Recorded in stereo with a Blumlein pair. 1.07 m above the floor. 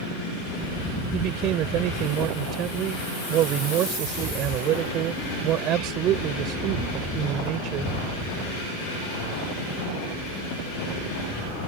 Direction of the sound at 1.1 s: 35° right.